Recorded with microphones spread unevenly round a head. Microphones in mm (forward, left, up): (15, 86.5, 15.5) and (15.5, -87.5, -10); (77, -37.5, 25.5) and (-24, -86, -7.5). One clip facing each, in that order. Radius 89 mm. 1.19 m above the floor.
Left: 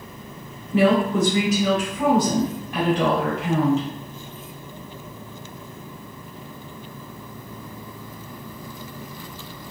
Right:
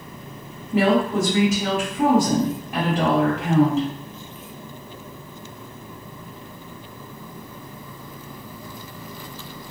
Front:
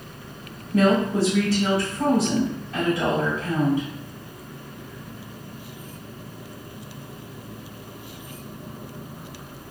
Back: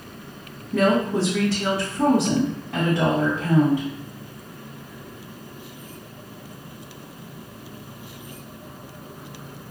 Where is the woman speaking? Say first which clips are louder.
Left 1 dB, even; 155° right, 1.7 m.